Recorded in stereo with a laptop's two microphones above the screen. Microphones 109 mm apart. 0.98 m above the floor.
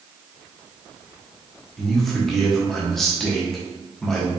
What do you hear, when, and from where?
1.8 s a man speaking: centre (ahead or behind), 0.8 m